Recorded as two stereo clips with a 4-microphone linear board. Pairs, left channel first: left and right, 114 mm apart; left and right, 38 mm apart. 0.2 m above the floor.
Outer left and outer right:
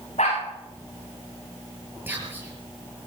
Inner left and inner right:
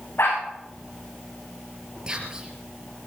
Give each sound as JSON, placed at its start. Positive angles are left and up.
{"t": 0.2, "sound": "a dog barking", "side_deg": 80, "distance_m": 7.0}
{"t": 2.1, "sound": "whispering", "side_deg": -20, "distance_m": 4.5}